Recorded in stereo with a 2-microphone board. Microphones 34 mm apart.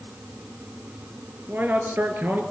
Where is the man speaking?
70° right (ahead or behind), 4.5 m.